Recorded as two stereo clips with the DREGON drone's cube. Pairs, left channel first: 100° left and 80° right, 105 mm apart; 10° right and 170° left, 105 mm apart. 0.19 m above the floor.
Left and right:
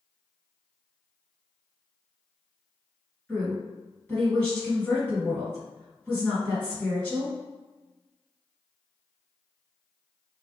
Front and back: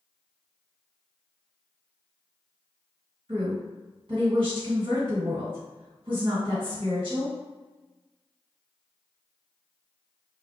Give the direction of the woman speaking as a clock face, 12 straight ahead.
6 o'clock.